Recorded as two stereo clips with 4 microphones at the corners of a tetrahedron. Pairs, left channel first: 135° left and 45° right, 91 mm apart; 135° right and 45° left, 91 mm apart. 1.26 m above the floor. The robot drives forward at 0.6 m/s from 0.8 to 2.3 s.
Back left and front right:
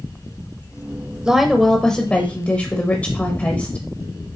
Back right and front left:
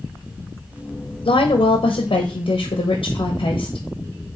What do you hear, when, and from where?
1.2 s a woman speaking: 125° right, 0.7 m; by 3.9 s 150° right, 1.1 m